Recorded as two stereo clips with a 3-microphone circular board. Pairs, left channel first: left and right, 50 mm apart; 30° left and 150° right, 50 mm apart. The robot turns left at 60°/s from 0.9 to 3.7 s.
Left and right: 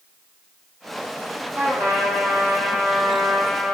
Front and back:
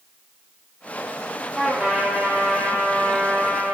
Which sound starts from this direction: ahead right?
A trumpet, at 1.6 s.